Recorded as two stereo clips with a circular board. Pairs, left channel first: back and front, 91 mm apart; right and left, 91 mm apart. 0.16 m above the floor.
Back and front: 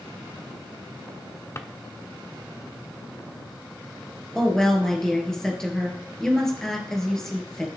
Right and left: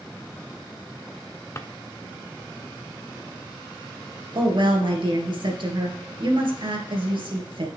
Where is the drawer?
135° right, 0.6 m.